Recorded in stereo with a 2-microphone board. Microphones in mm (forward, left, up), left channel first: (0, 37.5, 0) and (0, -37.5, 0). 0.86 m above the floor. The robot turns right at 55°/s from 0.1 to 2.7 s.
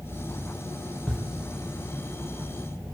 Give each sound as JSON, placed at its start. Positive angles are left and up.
{"t": 1.1, "sound": "a camera shutter", "side_deg": 10, "distance_m": 8.0}